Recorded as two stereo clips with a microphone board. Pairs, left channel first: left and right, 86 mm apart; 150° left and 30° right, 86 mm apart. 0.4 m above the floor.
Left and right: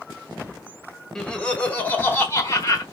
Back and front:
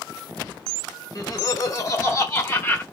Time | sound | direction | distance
1.1 | laughter | 170° left | 1.5 m